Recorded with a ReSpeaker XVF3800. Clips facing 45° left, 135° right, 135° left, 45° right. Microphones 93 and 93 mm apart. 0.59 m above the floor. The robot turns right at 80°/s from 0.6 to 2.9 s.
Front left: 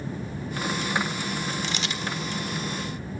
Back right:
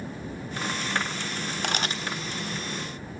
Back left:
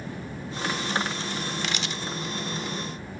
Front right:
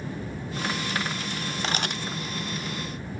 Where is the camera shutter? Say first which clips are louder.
Back right 2 dB, front right 2 dB; 100° right, 0.6 m; by 2.0 s 70° right, 0.6 m.